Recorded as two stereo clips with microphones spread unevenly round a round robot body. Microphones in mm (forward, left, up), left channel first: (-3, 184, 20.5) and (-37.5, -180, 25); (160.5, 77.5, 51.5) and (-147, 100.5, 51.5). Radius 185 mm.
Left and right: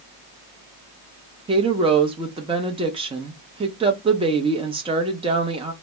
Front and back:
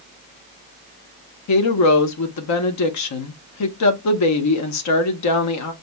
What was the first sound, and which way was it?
A woman speaking, 20° right.